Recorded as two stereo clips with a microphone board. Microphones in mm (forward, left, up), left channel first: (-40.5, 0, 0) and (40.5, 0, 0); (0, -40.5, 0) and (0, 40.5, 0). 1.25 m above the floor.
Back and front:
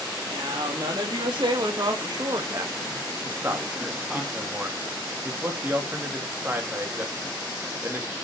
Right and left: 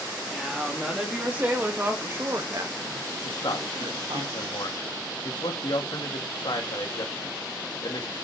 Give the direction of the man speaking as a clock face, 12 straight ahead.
2 o'clock.